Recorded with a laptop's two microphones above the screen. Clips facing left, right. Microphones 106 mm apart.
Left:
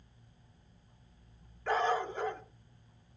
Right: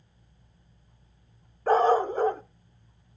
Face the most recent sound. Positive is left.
turn(degrees=-40)  # may be behind; listen again after turning